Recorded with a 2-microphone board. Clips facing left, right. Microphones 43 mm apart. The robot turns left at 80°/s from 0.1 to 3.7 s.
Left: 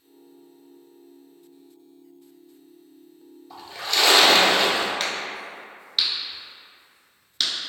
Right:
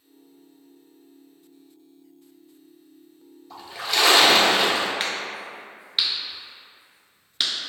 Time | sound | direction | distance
3.5 | a splash | 5° left (ahead or behind) | 0.8 m
5.0 | a crack | 15° right (ahead or behind) | 0.7 m